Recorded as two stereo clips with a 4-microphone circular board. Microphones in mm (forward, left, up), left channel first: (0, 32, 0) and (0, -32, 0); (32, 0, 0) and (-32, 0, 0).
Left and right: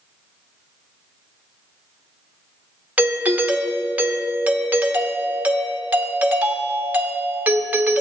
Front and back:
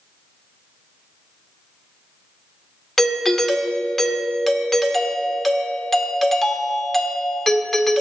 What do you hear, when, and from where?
3.0 s a doorbell: 85° right, 1.2 m